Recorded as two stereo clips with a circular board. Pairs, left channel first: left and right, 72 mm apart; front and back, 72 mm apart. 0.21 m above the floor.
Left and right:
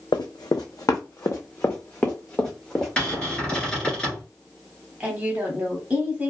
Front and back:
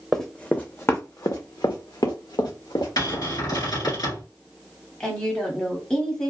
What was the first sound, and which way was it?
Running footsteps, 85° left.